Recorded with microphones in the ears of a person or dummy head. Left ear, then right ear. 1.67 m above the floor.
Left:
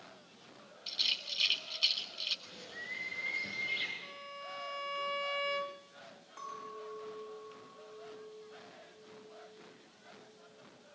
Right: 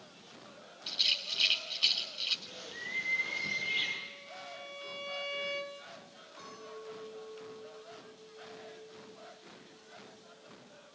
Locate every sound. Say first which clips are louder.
0.9 s a rattle: right 3 dB; 10° left (ahead or behind), 3 m
2.5 s a bird: right 2 dB; 5° left (ahead or behind), 7.5 m
4.0 s a violin: even; 35° left (ahead or behind), 1.8 m
6.4 s a clink: left 3 dB; 45° left (ahead or behind), 6 m